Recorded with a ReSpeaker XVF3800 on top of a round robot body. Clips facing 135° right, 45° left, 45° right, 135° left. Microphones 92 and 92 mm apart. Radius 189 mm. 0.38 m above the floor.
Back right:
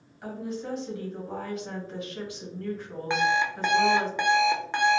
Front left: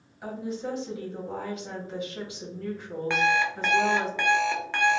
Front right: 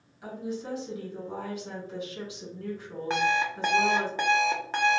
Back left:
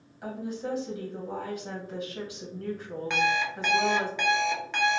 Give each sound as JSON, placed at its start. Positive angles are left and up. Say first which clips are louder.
{"t": 0.2, "sound": "a woman speaking", "louder": "front left 1 dB, back left 1 dB", "azimuth_deg": 110, "distance_m": 1.7}
{"t": 3.1, "sound": "an alarm clock", "louder": "even, front right 1 dB", "azimuth_deg": -70, "distance_m": 0.8}